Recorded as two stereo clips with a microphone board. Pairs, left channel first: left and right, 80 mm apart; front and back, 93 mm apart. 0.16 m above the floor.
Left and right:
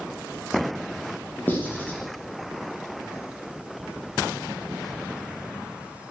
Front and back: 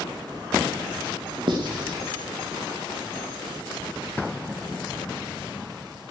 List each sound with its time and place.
1.5 s writing: 155° left, 4.5 m